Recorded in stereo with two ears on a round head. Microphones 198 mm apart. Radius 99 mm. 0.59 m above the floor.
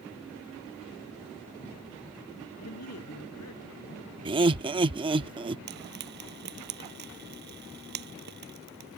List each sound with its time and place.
2.6 s a man speaking: 80° left; by 4.0 s 85° left
4.2 s laughter: 20° right (ahead or behind)
5.7 s frying: 50° right (ahead or behind)